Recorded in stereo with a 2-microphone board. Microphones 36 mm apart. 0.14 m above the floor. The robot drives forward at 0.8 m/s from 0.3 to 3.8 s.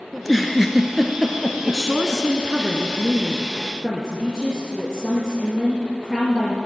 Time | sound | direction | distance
0.1 | a giggle | centre (ahead or behind) | 0.9 m
1.6 | a woman speaking | 15° right (ahead or behind) | 1.1 m